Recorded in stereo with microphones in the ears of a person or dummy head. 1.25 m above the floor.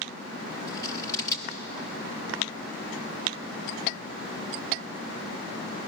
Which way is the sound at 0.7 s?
20° left (ahead or behind).